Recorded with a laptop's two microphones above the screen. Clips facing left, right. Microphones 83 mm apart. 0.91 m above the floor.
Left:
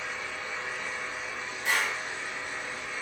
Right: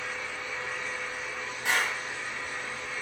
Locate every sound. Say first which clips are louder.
0.0 s a fan: even; 20° left (ahead or behind), 1.1 m
1.6 s a clap: right 1 dB; 75° right (ahead or behind), 1.2 m